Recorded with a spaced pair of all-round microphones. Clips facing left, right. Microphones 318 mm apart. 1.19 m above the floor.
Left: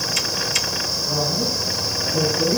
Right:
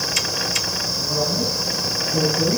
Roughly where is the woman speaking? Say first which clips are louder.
Right 1 dB; right.